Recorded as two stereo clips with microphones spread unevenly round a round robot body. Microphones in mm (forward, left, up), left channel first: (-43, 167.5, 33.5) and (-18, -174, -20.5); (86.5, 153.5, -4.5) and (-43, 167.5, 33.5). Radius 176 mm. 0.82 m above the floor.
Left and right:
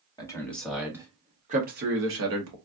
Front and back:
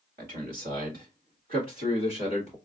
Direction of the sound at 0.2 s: 175° left.